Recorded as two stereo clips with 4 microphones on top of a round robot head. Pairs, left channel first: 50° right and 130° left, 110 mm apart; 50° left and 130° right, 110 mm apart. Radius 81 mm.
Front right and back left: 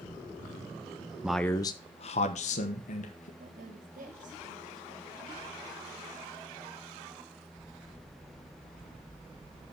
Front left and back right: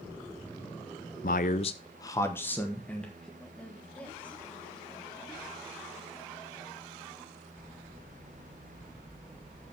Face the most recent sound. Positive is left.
turn(degrees=130)